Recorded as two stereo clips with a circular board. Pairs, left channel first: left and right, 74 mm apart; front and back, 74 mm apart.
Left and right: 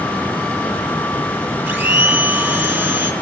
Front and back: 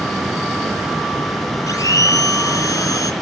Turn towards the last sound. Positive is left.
turn(degrees=-30)